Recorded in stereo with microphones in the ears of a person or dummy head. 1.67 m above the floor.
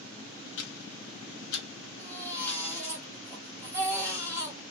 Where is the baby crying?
15° right (ahead or behind), 1.6 m.